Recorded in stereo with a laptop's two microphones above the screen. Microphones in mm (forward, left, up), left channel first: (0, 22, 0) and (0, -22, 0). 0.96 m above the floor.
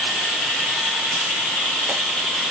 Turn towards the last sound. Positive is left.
No sound to turn to.